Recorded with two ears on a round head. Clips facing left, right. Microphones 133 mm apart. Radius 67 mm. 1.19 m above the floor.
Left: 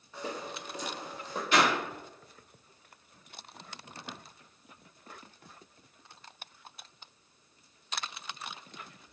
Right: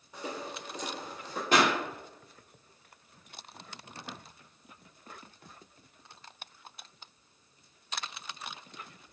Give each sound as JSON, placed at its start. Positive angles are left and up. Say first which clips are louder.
{"t": 0.1, "sound": "footsteps", "louder": "even", "side_deg": -15, "distance_m": 1.3}
{"t": 1.5, "sound": "a pop", "louder": "right 1 dB", "side_deg": -40, "distance_m": 0.8}